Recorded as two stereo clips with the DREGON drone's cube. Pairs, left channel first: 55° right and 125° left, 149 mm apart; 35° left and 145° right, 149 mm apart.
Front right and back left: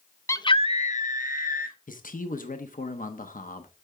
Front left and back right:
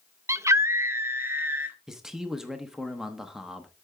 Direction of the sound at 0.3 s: 100° right.